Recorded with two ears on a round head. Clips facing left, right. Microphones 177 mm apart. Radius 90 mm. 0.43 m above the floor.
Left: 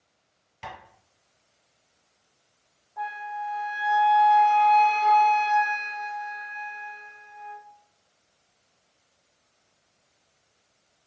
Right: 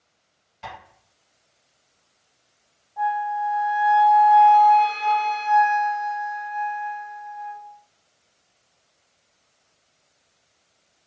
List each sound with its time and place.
0.6 s tapping: 60° left (ahead or behind), 1.8 m
3.0 s a flute: 30° left (ahead or behind), 1.1 m